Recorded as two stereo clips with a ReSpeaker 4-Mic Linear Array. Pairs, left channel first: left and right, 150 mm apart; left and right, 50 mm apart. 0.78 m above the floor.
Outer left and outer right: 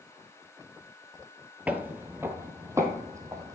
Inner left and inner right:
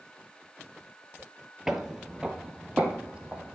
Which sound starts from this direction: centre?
Footsteps, at 1.7 s.